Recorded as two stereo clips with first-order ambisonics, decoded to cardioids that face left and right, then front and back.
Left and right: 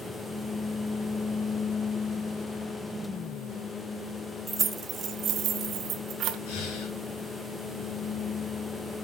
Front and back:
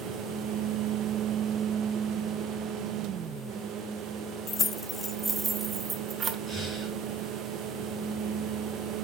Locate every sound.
4.5 s keys jangling: 30° right, 0.7 m; by 6.4 s 120° right, 1.3 m
6.5 s breathing: 95° left, 5.5 m